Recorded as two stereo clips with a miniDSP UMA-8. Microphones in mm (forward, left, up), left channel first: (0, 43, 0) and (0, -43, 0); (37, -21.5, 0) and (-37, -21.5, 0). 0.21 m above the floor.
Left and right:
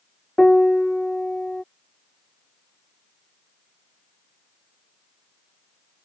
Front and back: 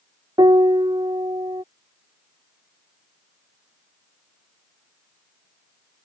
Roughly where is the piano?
Behind.